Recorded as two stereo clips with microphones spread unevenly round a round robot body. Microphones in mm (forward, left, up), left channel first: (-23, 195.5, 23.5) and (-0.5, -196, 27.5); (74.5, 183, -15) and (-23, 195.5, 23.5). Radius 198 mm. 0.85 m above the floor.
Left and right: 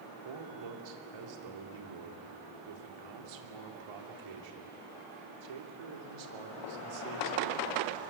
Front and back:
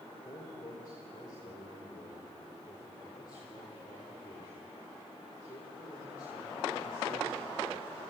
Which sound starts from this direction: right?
A man speaking, at 0.2 s.